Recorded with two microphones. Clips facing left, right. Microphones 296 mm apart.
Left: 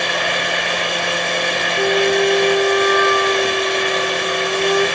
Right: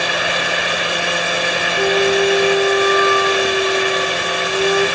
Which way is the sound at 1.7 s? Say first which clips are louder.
Right 1 dB; 10° left (ahead or behind).